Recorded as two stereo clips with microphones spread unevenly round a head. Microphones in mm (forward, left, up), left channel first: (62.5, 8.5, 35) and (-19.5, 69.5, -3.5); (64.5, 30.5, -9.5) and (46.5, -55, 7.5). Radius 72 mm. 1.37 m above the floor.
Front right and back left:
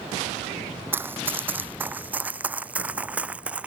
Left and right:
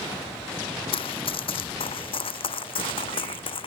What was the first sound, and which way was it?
Running footsteps, 65° left.